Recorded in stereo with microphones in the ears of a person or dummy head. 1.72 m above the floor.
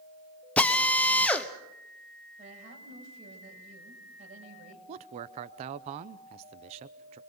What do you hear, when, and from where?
0.6 s a drill: 10° left (ahead or behind), 1.1 m
2.4 s a woman speaking: 40° right (ahead or behind), 7.5 m
4.9 s a man speaking: 35° right (ahead or behind), 0.7 m